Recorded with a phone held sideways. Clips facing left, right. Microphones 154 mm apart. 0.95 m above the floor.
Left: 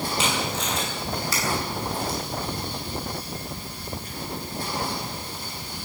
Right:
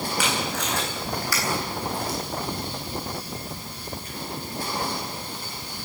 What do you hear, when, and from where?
0.2 s tape being pulled: 25° left (ahead or behind), 9.5 m